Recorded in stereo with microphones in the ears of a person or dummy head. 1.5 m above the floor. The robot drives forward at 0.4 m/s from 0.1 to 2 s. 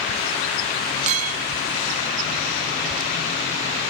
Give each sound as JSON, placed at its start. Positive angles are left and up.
{"t": 1.1, "sound": "a clink", "side_deg": -40, "distance_m": 0.7}